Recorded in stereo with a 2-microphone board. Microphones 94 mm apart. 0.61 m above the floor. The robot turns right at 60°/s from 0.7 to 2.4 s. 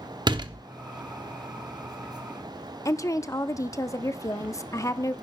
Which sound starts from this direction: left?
A woman speaking, at 2.9 s.